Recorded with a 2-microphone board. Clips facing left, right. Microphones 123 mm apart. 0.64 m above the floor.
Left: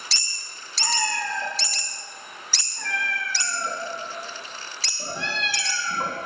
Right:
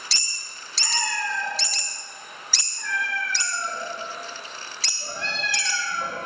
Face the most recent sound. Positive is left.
turn(degrees=70)  # may be behind; listen again after turning